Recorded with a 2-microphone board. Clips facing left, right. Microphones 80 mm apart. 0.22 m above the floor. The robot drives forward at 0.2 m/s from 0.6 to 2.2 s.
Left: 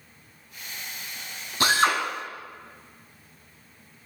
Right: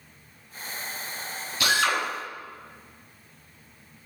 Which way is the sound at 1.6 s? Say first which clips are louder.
Left 3 dB; 40° left (ahead or behind).